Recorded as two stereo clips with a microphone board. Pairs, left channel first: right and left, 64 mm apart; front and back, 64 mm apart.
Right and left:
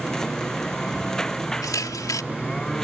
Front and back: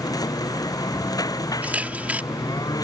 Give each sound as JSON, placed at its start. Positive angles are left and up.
{"t": 0.0, "sound": "a lawn mower", "azimuth_deg": -10}
{"t": 1.6, "sound": "a camera shutter", "azimuth_deg": -115}